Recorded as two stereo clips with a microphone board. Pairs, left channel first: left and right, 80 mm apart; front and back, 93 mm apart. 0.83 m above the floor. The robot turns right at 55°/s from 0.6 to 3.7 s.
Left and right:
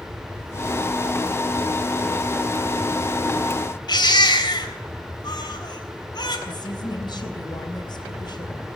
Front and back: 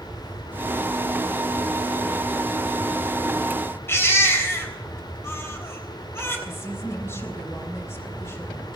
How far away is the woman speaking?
About 3.5 m.